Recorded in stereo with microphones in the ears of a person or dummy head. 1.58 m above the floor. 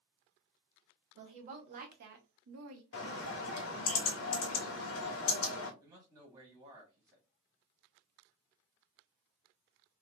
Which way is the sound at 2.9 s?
70° left (ahead or behind).